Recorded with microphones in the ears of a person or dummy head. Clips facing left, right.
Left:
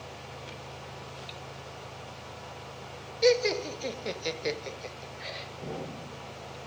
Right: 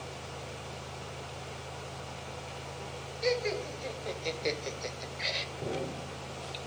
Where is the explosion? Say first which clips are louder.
Right 3 dB; 35° right (ahead or behind), 5.5 m.